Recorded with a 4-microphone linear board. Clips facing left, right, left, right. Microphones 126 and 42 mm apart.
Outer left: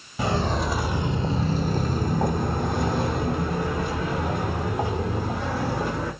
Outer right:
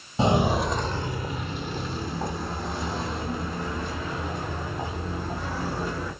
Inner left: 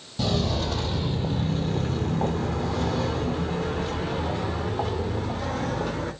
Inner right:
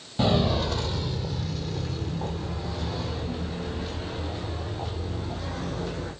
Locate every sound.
0.2 s footsteps: 25° right (ahead or behind), 0.7 m; by 6.1 s 70° left (ahead or behind), 3.5 m